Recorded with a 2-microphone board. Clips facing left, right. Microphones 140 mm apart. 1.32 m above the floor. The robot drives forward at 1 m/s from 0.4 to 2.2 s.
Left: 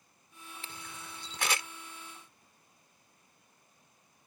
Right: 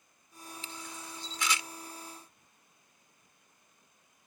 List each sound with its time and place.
0.6 s a camera shutter: 55° left (ahead or behind)